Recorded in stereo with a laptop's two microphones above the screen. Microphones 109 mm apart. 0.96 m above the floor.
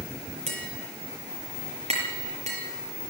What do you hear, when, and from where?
0.5 s tapping: 85° right, 6 m